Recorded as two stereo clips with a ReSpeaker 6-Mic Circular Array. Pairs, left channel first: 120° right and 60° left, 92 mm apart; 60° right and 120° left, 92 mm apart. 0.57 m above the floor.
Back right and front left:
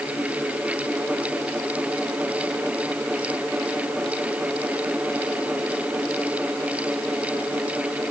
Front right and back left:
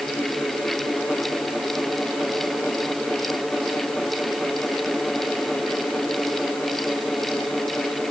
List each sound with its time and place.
Only background noise.